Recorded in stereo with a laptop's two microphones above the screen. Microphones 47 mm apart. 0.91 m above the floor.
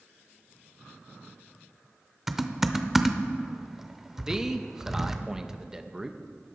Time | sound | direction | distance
2.3 | typing on a keyboard | 5° right (ahead or behind) | 0.6 m
4.3 | a man speaking | 15° right (ahead or behind) | 0.6 m